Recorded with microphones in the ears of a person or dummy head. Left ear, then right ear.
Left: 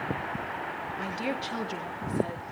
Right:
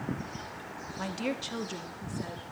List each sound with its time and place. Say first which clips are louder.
1.0 s a woman speaking: even; 5° right (ahead or behind), 1.3 m; by 2.4 s 20° left (ahead or behind), 2.5 m